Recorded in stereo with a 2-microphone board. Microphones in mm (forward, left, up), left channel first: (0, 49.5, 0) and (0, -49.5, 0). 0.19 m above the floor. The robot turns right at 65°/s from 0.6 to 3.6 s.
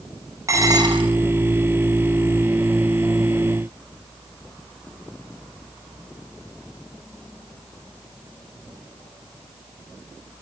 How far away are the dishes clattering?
About 3 m.